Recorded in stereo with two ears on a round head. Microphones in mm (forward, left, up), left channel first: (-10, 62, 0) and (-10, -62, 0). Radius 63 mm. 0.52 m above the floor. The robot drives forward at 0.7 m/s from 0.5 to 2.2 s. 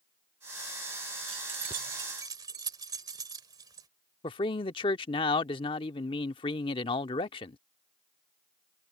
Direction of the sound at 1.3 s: 45° right (ahead or behind).